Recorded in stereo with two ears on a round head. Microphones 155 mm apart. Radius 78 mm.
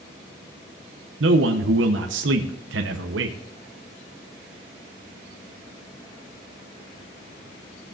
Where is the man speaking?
75° right (ahead or behind), 0.8 m.